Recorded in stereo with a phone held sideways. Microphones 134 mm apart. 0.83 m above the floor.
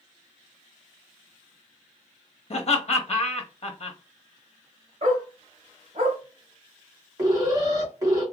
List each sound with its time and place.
2.5 s laughter: 50° left (ahead or behind), 0.9 m
5.0 s a dog barking: 50° right (ahead or behind), 1.4 m
7.2 s an alarm: 25° right (ahead or behind), 1.8 m